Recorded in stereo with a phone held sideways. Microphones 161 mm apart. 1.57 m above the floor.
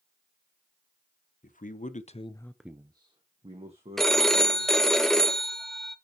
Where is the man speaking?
55° left (ahead or behind), 1.1 m; by 5.0 s 45° right (ahead or behind), 2.5 m.